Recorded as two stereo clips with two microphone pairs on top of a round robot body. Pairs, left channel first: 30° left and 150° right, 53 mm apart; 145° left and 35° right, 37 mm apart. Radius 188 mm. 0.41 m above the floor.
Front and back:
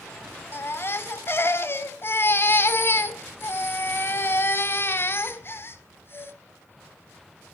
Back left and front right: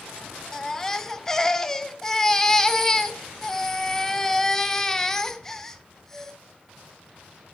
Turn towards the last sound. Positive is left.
turn(degrees=70)